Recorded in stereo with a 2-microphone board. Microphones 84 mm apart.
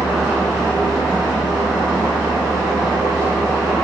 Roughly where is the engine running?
Centre.